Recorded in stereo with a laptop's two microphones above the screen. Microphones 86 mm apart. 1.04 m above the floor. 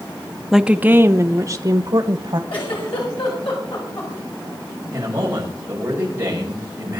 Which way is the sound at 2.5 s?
80° left.